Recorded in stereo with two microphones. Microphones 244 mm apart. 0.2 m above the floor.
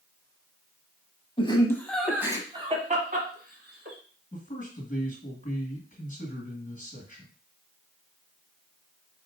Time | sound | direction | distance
1.4 | laughter | 25° left (ahead or behind) | 1.1 m
4.3 | a man speaking | 35° left (ahead or behind) | 1.8 m